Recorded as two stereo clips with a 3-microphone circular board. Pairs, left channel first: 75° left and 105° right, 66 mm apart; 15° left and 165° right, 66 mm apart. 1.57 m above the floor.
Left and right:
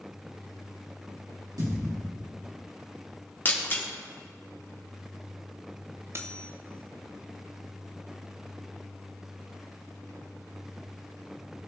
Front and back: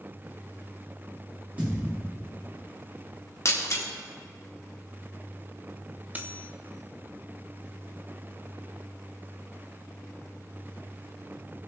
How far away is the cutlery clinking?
About 0.8 m.